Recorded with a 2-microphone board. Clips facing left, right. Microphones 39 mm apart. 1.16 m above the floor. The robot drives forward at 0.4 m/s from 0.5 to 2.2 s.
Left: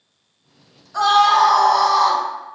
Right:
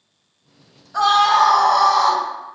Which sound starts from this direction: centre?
A scream, at 0.9 s.